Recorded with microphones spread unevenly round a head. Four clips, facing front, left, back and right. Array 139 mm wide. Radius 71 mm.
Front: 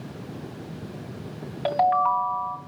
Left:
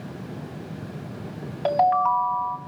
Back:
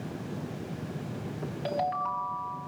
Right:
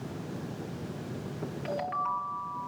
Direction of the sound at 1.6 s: 60° left.